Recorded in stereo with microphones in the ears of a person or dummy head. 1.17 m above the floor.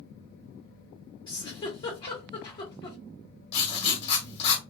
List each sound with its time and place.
1.3 s a giggle: 25° left (ahead or behind), 1.2 m
3.5 s writing: 35° left (ahead or behind), 1.0 m